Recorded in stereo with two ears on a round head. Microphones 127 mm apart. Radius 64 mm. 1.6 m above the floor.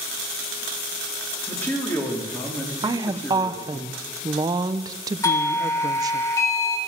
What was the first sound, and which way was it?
A man speaking, 15° left (ahead or behind).